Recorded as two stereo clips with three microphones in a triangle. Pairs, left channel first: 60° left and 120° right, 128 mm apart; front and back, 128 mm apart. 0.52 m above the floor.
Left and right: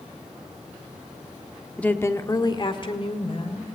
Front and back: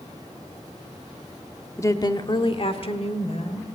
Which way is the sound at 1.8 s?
5° right.